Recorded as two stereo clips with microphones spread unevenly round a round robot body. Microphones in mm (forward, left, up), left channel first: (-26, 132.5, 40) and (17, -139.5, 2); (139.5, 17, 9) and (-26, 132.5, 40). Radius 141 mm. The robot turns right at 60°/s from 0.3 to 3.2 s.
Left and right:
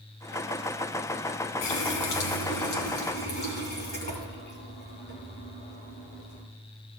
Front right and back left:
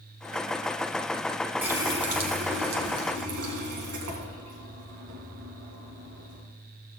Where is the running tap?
60° left, 2.5 m; by 6.4 s 155° left, 2.5 m.